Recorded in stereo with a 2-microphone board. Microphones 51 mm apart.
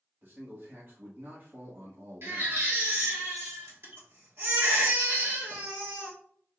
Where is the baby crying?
55° right (ahead or behind), 1.6 m.